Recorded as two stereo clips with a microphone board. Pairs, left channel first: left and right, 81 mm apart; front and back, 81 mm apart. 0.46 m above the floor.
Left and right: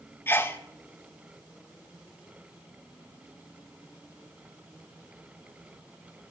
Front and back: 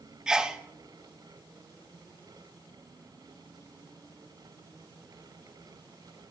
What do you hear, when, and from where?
0.3 s a sneeze: 110° left, 0.7 m